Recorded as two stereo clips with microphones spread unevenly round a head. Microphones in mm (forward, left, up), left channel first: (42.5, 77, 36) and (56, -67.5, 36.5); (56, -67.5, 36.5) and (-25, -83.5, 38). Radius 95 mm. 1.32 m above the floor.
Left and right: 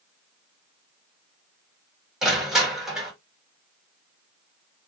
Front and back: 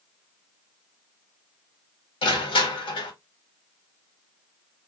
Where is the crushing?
Straight ahead, 2.0 m.